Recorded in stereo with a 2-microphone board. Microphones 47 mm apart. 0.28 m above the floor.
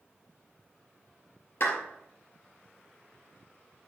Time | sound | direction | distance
1.6 | a clap | 55° left (ahead or behind) | 3.5 m